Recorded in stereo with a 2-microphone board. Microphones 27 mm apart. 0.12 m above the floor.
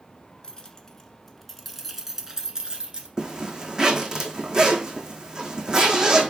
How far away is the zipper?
About 1.2 m.